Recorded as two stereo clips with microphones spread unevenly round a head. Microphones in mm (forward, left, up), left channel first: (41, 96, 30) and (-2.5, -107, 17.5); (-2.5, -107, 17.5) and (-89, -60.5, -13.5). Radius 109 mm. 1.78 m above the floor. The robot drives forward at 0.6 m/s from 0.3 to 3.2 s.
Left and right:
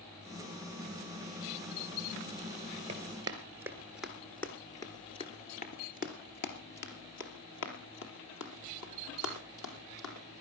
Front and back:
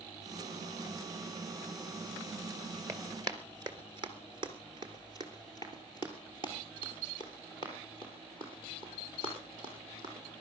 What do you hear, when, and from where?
2.9 s running footsteps: 150° right, 2 m; by 10.4 s 75° left, 5 m